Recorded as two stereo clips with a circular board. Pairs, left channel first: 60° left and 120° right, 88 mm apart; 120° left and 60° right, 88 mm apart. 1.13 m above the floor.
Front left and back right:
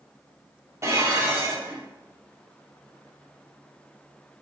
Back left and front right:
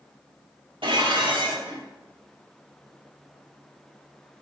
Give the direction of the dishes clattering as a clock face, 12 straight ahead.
2 o'clock.